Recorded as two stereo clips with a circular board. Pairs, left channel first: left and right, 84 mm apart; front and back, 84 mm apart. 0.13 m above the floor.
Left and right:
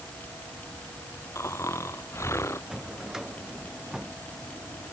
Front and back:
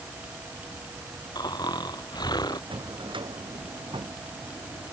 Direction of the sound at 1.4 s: 30° left.